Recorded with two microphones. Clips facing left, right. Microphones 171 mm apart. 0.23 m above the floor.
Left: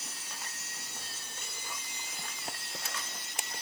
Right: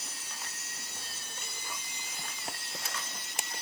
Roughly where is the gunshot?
No gunshot in this recording.